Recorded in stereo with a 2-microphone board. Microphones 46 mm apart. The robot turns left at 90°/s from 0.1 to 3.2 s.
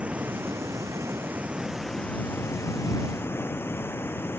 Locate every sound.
0.0 s running water: 25° right; by 4.4 s 55° left